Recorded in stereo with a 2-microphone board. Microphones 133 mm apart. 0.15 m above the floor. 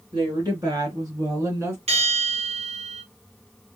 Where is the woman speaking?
30° right (ahead or behind), 3 m; by 1.8 s 20° right (ahead or behind), 1.9 m.